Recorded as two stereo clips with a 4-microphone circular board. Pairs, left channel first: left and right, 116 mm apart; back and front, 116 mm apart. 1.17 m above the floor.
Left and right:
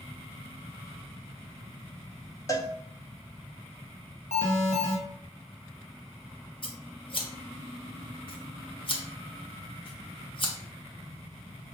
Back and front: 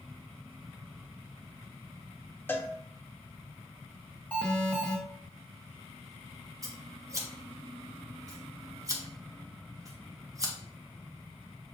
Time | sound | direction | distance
2.5 | a cowbell | 125° left | 0.6 m
4.3 | an alarm | 105° left | 1.4 m
6.6 | scissors | 60° left | 1.1 m